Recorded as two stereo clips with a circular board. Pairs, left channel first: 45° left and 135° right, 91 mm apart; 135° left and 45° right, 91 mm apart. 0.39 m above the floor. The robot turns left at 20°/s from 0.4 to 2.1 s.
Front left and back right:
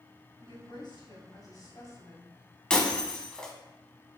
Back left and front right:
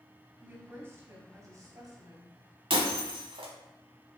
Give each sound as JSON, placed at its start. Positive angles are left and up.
{"t": 0.4, "sound": "a woman speaking", "azimuth_deg": 25, "distance_m": 2.0}
{"t": 2.7, "sound": "breaking glass", "azimuth_deg": -35, "distance_m": 1.0}